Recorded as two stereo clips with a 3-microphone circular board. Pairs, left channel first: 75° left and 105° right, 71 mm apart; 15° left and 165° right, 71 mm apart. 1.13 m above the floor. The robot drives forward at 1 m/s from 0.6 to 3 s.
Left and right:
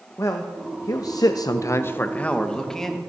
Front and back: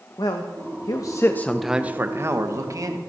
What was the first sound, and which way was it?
A man speaking, 30° left.